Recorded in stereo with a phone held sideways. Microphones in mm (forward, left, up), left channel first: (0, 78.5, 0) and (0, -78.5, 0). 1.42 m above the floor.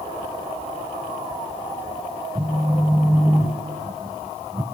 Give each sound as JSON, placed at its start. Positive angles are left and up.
{"t": 2.4, "sound": "a phone buzzing", "side_deg": -20, "distance_m": 1.3}